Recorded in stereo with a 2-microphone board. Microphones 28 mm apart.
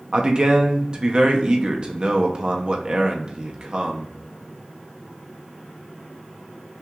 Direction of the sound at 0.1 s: 30° right (ahead or behind).